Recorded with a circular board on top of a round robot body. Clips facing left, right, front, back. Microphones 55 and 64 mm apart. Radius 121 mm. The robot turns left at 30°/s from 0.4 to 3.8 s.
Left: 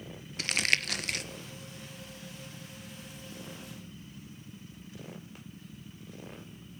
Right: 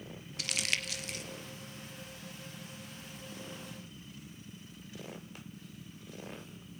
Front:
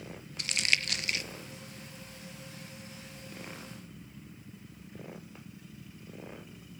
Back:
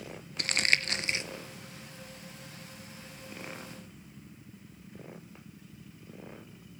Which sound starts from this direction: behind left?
Crumpling, at 0.4 s.